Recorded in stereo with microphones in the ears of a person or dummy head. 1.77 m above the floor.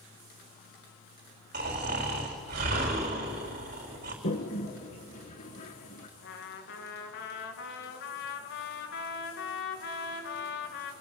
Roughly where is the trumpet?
Left.